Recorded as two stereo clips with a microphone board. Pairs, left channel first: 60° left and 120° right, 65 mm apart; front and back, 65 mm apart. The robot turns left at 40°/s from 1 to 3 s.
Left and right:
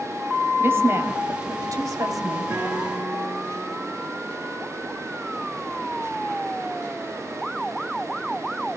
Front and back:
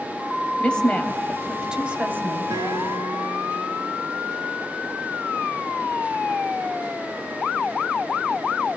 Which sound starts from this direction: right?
A woman speaking, at 0.6 s.